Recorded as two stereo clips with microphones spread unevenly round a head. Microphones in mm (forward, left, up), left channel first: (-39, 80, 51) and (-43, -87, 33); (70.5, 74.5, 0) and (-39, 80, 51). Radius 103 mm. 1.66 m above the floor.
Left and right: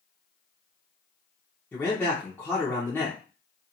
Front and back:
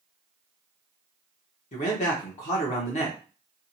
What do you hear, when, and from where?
1.7 s a man speaking: 15° left, 0.7 m